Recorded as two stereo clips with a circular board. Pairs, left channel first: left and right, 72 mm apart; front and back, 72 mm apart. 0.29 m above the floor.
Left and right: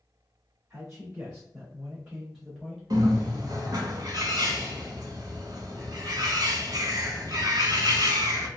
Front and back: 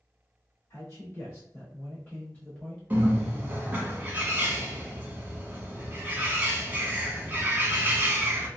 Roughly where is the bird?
Behind right.